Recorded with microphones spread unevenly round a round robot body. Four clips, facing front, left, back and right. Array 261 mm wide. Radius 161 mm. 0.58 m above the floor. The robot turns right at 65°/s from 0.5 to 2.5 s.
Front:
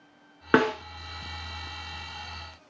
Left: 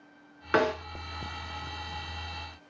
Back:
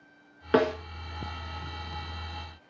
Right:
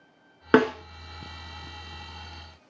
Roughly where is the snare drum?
Ahead right.